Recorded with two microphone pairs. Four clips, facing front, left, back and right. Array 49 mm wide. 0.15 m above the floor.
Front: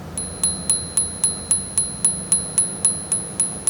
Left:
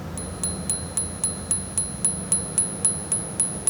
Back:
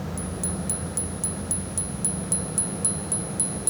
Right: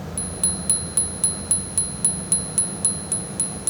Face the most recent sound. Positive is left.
turn(degrees=20)